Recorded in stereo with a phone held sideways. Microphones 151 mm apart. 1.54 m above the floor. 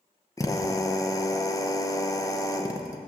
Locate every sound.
0.4 s a drill: 20° left (ahead or behind), 0.9 m